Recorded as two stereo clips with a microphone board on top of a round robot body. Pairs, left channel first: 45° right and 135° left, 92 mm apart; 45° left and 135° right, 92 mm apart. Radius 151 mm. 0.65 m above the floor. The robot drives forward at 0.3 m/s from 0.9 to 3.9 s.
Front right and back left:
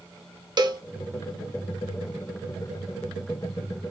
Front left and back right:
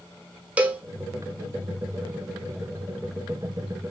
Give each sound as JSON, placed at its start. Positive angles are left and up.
{"t": 0.6, "sound": "a cowbell", "azimuth_deg": 155, "distance_m": 1.1}